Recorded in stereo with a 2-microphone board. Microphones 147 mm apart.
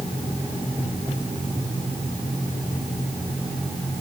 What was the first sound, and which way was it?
Only background noise.